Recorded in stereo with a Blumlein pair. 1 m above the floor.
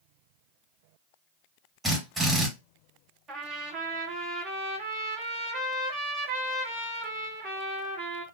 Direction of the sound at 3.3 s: 30° right.